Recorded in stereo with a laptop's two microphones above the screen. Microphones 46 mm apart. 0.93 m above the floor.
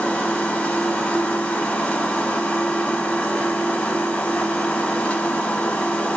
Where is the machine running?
30° left (ahead or behind), 1.0 m.